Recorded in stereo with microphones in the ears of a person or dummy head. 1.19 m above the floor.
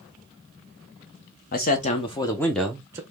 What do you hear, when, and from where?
1.5 s a man speaking: 50° left (ahead or behind), 0.9 m; by 3.0 s 15° right (ahead or behind), 0.8 m